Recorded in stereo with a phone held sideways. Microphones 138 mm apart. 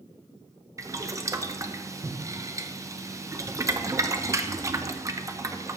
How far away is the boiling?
About 0.6 m.